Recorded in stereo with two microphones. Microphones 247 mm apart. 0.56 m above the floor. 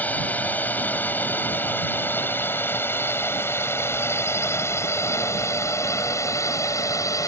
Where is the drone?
5° left (ahead or behind); by 7.3 s 15° left (ahead or behind).